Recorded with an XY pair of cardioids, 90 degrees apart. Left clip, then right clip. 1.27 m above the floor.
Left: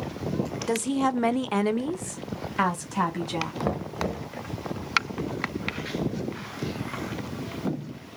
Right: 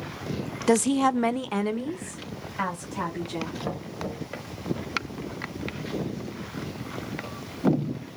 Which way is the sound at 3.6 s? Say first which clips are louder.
Left 4 dB; 50° left.